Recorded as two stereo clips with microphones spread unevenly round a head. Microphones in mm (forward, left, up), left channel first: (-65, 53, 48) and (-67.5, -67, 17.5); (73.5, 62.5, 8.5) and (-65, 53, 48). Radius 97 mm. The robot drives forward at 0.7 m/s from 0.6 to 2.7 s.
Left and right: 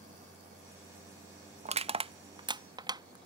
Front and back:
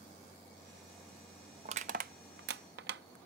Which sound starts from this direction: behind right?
Crushing, at 1.6 s.